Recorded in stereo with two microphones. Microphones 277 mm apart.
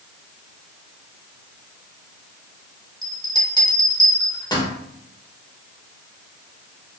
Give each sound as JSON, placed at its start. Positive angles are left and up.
{"t": 3.0, "sound": "a bell", "side_deg": 15, "distance_m": 0.9}